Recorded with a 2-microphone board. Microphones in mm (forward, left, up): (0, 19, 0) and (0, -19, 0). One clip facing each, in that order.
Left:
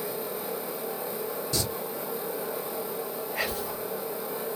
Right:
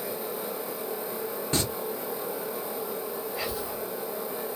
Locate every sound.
1.5 s singing: 40° right (ahead or behind), 0.7 m
3.4 s whispering: 65° left (ahead or behind), 1.1 m